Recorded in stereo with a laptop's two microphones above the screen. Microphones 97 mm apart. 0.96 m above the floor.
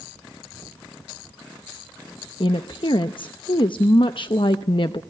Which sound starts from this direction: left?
A woman speaking, at 2.4 s.